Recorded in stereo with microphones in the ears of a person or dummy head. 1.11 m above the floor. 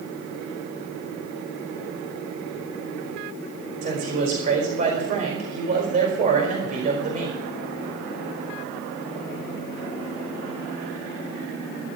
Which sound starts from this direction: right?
A man speaking, at 3.8 s.